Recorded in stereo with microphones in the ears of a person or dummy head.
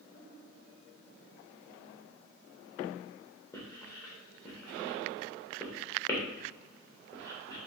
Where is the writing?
15° left (ahead or behind), 0.8 m.